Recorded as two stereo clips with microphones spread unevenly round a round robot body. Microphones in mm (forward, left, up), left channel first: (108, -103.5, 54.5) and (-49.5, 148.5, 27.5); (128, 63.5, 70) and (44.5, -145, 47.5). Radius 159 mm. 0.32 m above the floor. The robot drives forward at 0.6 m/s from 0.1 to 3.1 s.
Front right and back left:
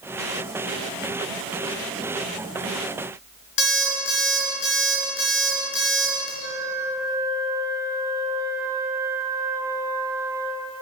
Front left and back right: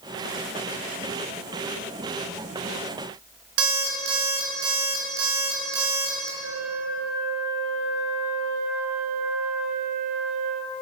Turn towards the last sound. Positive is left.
turn(degrees=-155)